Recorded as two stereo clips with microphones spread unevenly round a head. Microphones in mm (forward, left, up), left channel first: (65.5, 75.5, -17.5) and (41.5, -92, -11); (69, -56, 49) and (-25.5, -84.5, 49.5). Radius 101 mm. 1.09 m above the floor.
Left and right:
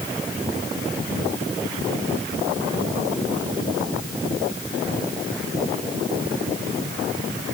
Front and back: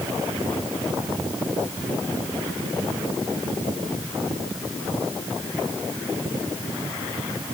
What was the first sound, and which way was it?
Only background noise.